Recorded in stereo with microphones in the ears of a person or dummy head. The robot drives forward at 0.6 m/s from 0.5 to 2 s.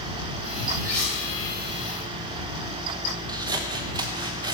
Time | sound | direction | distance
0.8 | cutlery clinking | 10° left (ahead or behind) | 7 m
3.3 | scissors | 25° right (ahead or behind) | 1.2 m